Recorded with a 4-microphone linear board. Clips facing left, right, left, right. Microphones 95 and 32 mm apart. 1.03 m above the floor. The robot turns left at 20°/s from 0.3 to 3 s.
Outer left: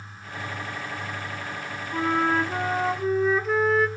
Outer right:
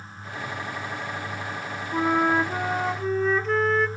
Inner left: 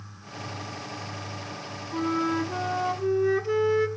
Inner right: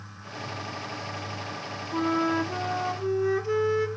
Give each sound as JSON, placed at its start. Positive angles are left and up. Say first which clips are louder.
{"t": 1.9, "sound": "a flute", "louder": "outer right 2 dB, inner right 1 dB", "side_deg": -15, "distance_m": 0.7}